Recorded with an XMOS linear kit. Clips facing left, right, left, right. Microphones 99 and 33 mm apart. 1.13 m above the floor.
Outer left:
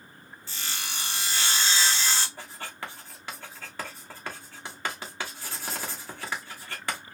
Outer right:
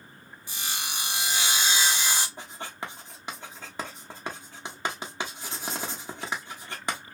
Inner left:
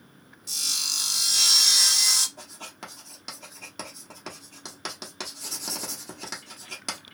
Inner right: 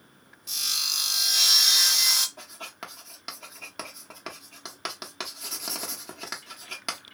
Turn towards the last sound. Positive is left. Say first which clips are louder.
# outer right 1 dB, inner right 1 dB
turn(degrees=-20)  # may be behind; listen again after turning